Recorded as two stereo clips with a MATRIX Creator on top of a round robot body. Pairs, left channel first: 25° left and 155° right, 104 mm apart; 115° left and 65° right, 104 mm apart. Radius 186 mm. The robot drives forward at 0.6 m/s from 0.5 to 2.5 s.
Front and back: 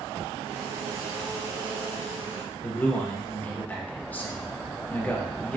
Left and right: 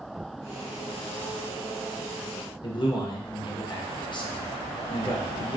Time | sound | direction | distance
2.6 | a man speaking | 90° left | 0.8 m